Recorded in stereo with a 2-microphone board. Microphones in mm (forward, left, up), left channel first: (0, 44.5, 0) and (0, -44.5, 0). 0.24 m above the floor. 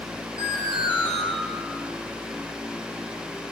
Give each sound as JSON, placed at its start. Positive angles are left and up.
{"t": 0.4, "sound": "an alarm", "side_deg": -65, "distance_m": 7.0}